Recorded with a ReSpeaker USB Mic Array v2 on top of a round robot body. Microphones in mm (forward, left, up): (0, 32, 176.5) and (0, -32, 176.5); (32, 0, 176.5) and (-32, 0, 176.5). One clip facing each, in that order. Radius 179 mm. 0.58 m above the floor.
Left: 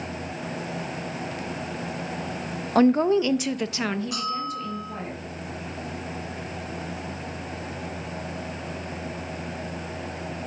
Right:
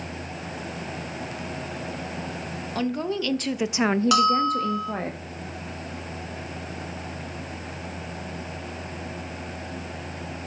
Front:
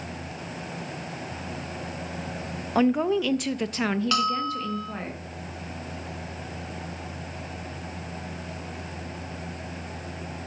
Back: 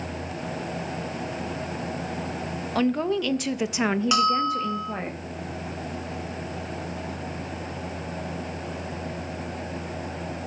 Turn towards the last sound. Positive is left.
turn(degrees=-100)